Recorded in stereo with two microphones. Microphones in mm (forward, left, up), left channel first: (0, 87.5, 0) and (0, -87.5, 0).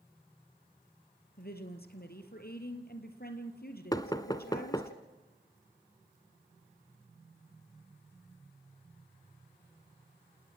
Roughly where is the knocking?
Left.